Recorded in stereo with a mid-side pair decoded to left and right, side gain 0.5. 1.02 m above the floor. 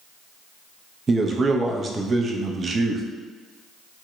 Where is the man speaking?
35° right, 0.6 m.